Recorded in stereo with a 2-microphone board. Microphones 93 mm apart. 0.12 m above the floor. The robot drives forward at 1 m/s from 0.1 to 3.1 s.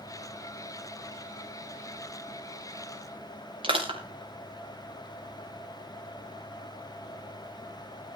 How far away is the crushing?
About 3 m.